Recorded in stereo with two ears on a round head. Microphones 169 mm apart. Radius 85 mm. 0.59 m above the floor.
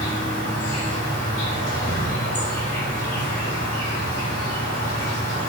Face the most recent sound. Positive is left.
turn(degrees=40)  # may be behind; listen again after turning